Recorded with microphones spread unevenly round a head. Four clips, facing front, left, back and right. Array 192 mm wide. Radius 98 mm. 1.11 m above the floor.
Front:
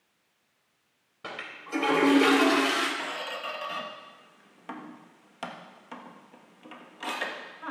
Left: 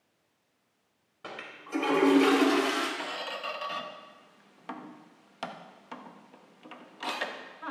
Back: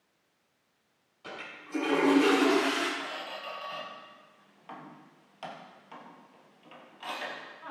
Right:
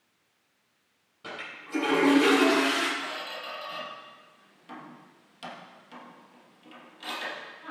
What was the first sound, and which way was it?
A toilet flushing, 15° left.